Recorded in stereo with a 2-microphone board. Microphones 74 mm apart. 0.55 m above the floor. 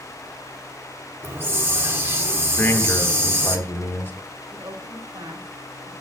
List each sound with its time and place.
1.2 s a hiss: 30° right (ahead or behind), 1.2 m
2.6 s a man speaking: 25° left (ahead or behind), 1.6 m
4.5 s a woman speaking: 60° right (ahead or behind), 2.5 m